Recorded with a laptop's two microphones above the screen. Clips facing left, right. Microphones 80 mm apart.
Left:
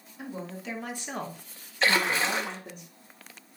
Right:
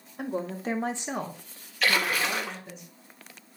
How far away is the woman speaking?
About 1.3 m.